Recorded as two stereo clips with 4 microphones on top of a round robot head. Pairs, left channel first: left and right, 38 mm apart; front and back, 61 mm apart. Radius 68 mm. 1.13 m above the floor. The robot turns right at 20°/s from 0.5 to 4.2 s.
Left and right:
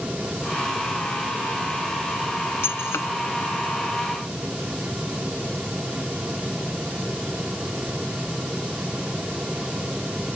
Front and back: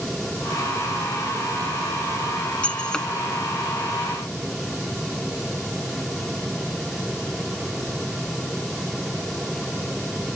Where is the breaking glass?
75° left; by 3.1 s 80° left.